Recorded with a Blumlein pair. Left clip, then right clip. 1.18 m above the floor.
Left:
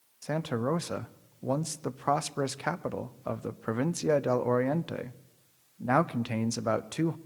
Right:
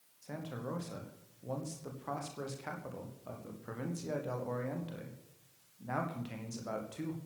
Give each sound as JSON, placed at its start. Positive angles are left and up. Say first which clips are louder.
{"t": 0.2, "sound": "a man speaking", "louder": "left 12 dB", "azimuth_deg": 35, "distance_m": 0.7}